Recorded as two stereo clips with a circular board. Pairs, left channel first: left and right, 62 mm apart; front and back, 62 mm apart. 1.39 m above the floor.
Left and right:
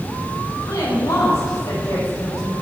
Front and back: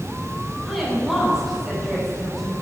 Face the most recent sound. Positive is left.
turn(degrees=90)